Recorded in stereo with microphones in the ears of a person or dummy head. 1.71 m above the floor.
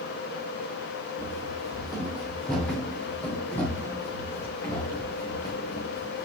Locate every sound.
1.2 s running footsteps: 15° right (ahead or behind), 3.5 m; by 6.2 s 25° left (ahead or behind), 5 m